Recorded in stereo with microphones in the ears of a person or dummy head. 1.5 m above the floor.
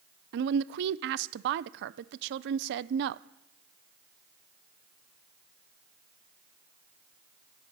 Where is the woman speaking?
60° right (ahead or behind), 0.6 m.